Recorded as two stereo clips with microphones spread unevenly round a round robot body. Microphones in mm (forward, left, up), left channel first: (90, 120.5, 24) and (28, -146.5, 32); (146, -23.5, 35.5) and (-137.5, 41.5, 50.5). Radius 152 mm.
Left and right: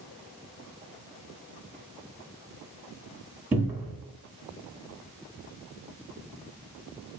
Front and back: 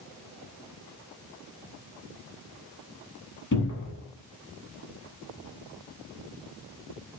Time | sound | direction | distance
3.5 | a cupboard door | 20° right | 1.4 m